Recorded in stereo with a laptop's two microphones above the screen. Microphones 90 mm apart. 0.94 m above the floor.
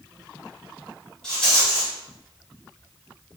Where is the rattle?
10° left (ahead or behind), 1.4 m.